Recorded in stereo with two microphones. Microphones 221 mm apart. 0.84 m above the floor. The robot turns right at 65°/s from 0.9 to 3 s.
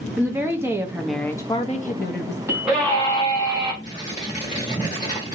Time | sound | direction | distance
0.2 | a woman speaking | 15° right | 0.6 m
2.5 | a scream | 15° right | 1.7 m
3.8 | tearing paper | 35° left (ahead or behind) | 1.8 m